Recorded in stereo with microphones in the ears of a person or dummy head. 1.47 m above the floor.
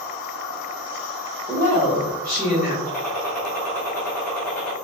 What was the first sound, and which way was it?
A woman speaking, 20° left (ahead or behind).